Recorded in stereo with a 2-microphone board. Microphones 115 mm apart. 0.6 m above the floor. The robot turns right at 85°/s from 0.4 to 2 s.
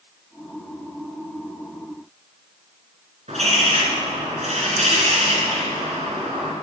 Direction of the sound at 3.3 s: 75° right (ahead or behind).